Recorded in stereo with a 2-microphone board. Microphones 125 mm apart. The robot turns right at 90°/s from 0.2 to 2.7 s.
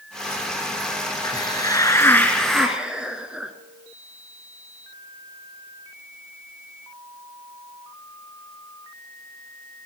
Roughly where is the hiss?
Left.